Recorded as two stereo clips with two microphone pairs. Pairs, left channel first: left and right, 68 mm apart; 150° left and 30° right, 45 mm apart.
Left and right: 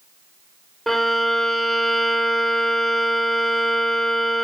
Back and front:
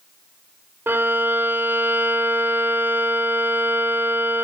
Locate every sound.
0.9 s a violin: 5° left, 0.6 m